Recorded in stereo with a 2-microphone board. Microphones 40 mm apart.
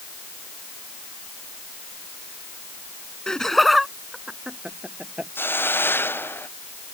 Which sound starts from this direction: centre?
Laughter, at 3.3 s.